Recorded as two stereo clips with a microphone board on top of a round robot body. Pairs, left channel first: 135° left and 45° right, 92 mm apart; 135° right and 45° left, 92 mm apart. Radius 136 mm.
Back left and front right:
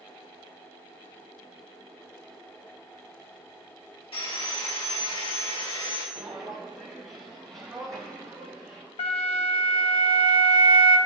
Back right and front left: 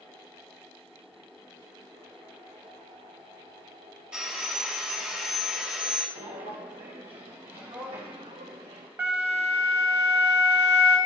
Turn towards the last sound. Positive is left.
turn(degrees=115)